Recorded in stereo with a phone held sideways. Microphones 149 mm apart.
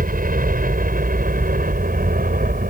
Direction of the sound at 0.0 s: 70° right (ahead or behind).